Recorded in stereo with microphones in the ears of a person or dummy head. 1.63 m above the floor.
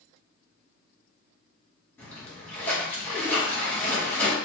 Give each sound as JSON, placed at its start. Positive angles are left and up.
{"t": 2.0, "sound": "a splash", "side_deg": 5, "distance_m": 1.0}